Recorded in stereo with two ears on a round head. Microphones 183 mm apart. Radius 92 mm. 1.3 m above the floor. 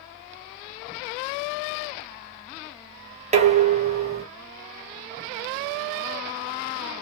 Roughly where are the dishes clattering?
Right.